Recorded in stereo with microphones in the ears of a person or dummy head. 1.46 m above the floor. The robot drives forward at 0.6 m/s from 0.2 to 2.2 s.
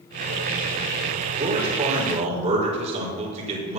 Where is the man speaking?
35° right (ahead or behind), 5 m; by 3.8 s 40° right (ahead or behind), 4.5 m.